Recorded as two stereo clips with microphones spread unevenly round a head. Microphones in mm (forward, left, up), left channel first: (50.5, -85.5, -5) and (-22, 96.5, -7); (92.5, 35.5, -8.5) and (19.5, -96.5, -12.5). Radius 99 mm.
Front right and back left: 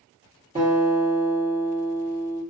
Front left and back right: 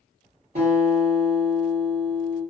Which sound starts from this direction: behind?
A guitar, at 0.6 s.